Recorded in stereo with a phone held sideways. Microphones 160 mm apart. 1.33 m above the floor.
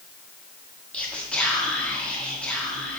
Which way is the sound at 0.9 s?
5° left (ahead or behind).